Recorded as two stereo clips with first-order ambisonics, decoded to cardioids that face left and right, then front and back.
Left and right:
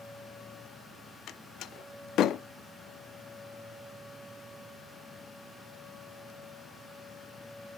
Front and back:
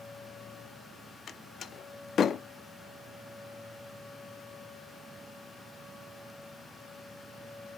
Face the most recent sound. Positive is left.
turn(degrees=55)